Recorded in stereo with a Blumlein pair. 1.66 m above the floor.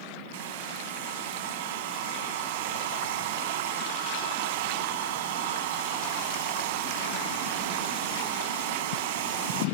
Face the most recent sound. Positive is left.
turn(degrees=-50)